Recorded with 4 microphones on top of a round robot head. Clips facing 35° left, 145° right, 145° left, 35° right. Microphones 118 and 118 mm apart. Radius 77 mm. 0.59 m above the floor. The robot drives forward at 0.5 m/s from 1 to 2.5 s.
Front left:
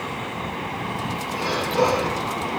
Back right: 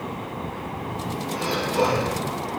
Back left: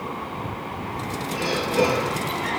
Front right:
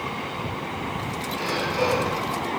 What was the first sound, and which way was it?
Breathing, 130° left.